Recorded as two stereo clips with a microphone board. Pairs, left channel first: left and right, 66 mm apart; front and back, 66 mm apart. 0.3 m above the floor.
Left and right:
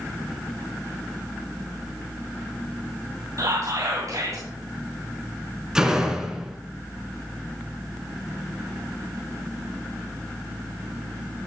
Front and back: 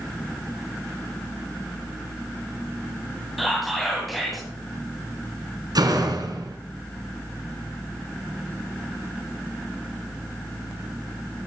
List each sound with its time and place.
3.4 s whispering: 90° right, 2.5 m
5.8 s a door slam: 170° right, 2 m